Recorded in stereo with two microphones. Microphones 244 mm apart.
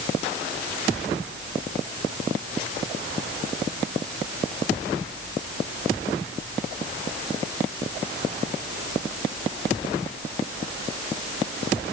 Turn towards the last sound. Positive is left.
No sound to turn to.